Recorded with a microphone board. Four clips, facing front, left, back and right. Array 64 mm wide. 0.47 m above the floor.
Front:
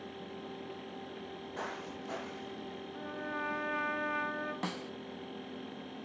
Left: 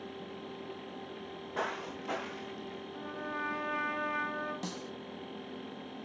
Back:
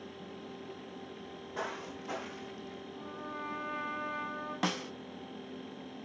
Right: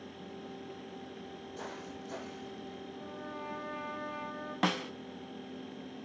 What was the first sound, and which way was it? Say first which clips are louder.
Footsteps: left 7 dB, back 3 dB; 95° left.